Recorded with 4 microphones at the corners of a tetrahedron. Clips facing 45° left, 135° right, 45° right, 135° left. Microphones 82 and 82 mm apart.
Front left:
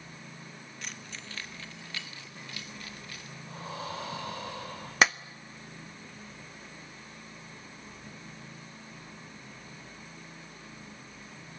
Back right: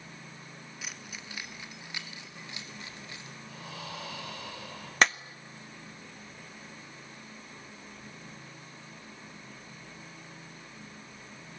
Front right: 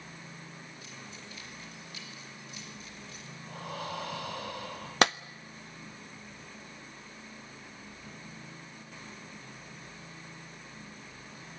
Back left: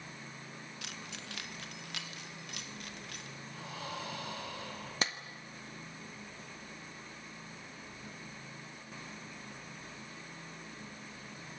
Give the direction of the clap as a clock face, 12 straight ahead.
1 o'clock.